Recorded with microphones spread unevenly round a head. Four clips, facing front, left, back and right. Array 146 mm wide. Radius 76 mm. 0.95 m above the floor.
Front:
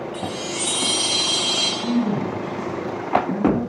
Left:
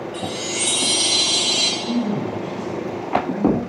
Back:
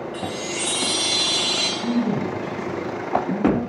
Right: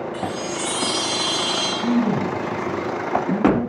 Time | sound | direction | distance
0.1 | a chime | 175° right | 1.4 m
1.8 | a man speaking | 125° right | 5.5 m